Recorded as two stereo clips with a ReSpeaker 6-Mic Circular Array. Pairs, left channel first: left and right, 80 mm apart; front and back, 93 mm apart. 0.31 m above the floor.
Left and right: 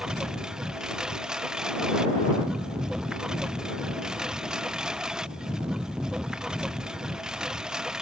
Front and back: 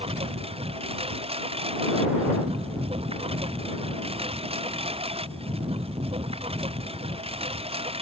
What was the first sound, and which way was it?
A lawn mower, 170° right.